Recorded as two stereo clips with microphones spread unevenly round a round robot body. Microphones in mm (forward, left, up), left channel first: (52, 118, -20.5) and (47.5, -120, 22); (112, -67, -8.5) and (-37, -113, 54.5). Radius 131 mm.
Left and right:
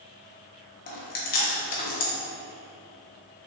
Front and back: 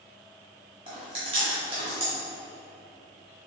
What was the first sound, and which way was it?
Chewing, 120° left.